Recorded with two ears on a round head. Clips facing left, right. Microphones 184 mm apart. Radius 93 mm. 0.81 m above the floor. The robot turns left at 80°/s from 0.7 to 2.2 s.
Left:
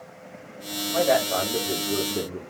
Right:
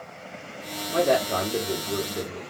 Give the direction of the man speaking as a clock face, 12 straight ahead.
4 o'clock.